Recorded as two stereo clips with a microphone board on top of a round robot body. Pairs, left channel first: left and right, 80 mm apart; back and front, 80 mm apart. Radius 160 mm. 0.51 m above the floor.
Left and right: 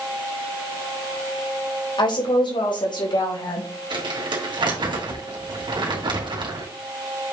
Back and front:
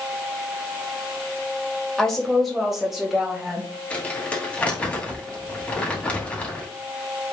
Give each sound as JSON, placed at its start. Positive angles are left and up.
{"t": 2.0, "sound": "a woman speaking", "azimuth_deg": 95, "distance_m": 3.5}
{"t": 3.9, "sound": "crumpling", "azimuth_deg": -105, "distance_m": 3.0}